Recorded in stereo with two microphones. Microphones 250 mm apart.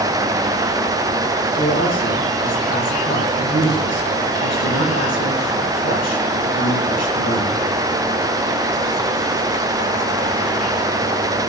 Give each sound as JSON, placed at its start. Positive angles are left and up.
{"t": 1.6, "sound": "a man speaking", "side_deg": 80, "distance_m": 7.5}